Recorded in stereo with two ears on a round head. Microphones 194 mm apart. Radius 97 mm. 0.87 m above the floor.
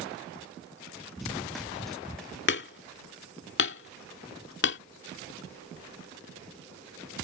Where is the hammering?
60° left (ahead or behind).